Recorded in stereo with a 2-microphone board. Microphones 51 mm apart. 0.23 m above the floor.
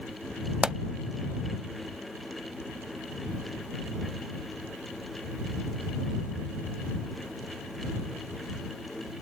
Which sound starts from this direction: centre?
A pop, at 0.6 s.